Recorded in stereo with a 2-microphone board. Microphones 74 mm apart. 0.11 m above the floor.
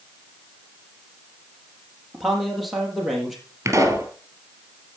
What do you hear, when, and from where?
2.1 s a man speaking: centre (ahead or behind), 3.5 m
3.6 s a pop: 40° right (ahead or behind), 3 m